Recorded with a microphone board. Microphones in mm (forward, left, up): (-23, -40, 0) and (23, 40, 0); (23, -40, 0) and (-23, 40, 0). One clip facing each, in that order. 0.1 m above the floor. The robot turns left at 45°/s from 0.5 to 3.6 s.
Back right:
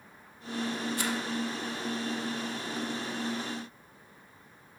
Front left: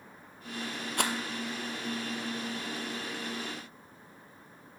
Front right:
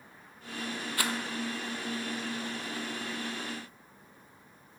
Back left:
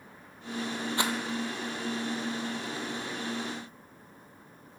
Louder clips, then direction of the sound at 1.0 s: Front left 5 dB, back left 3 dB; 55° left.